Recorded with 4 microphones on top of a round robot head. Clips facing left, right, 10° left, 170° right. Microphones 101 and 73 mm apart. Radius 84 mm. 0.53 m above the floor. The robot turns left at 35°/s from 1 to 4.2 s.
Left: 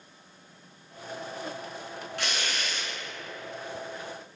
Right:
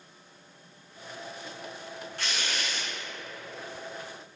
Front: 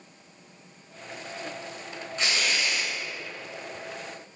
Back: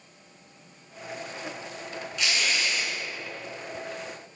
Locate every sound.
2.2 s tearing paper: 65° left, 1.8 m; by 2.9 s 40° left, 1.8 m